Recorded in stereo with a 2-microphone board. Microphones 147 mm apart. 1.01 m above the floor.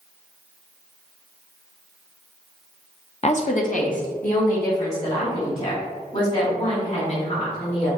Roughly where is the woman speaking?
Left.